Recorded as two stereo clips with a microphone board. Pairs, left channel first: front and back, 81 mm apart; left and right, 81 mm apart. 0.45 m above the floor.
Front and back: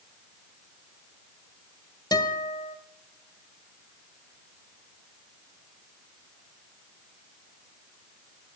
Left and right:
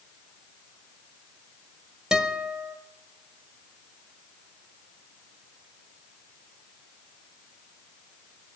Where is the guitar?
10° right, 1.3 m.